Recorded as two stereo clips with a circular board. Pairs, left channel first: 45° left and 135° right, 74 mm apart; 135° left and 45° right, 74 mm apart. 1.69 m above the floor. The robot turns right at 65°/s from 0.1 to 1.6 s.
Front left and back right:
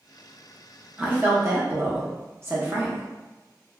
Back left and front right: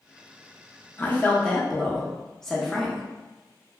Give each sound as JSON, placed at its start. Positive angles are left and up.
{"t": 1.0, "sound": "a woman speaking", "azimuth_deg": 175, "distance_m": 0.7}